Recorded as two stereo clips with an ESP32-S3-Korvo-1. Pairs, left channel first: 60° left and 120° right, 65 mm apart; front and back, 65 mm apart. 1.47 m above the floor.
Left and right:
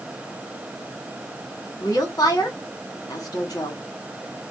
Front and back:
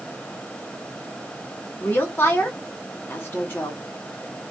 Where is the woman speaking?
55° left, 1.8 m.